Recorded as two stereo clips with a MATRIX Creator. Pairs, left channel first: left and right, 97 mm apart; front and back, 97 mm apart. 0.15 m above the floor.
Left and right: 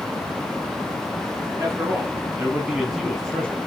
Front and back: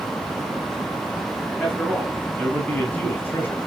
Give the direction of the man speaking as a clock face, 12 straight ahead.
2 o'clock.